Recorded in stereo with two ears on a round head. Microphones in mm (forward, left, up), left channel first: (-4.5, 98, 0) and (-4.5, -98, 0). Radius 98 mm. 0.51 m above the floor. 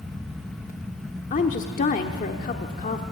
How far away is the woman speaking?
About 1.1 m.